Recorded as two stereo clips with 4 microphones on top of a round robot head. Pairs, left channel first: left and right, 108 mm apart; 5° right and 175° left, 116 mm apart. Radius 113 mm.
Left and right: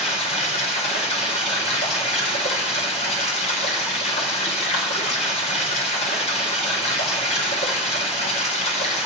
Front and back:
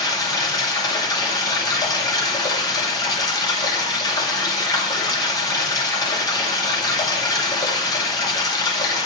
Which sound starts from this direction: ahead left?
Running water, at 0.0 s.